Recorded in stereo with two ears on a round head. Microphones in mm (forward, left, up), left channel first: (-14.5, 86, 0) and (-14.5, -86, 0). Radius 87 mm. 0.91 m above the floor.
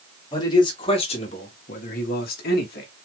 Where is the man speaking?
20° left (ahead or behind), 1.8 m; by 2.9 s 55° left (ahead or behind), 1.3 m.